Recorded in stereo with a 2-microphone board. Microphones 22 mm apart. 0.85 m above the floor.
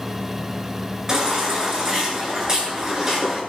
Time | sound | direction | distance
1.1 | a baby crying | 20° right (ahead or behind) | 9 m